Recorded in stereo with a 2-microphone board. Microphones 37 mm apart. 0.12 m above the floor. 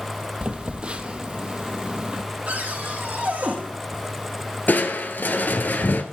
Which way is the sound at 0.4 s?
30° right (ahead or behind).